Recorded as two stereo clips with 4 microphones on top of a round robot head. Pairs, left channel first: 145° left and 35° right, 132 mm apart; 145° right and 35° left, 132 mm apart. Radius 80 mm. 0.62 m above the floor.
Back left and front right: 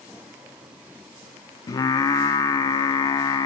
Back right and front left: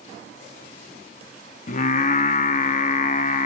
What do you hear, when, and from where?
1.7 s singing: 155° right, 0.5 m